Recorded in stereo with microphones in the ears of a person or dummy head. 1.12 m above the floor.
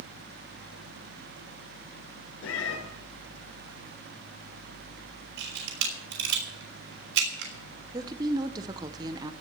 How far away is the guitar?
I don't hear a guitar.